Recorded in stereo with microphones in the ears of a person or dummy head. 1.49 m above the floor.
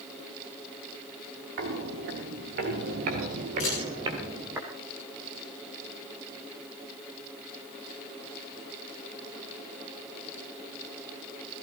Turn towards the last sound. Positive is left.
turn(degrees=40)  # may be behind; listen again after turning